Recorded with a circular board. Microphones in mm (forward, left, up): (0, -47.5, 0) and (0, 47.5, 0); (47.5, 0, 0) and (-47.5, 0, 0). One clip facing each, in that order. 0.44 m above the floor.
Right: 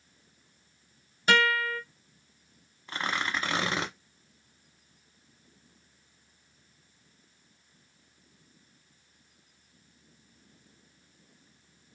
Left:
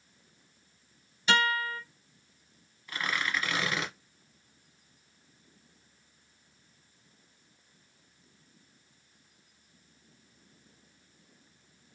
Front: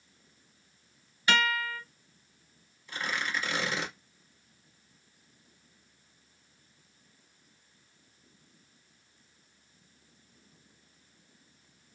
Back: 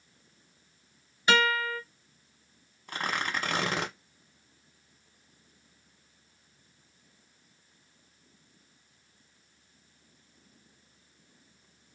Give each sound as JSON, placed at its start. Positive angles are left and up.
{"t": 1.3, "sound": "a guitar", "azimuth_deg": -120, "distance_m": 1.8}
{"t": 2.9, "sound": "tearing paper", "azimuth_deg": -145, "distance_m": 0.8}